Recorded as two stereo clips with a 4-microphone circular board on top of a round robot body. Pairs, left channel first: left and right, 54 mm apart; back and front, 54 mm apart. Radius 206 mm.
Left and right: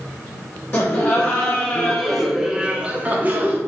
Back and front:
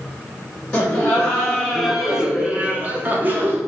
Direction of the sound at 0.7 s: 120° left.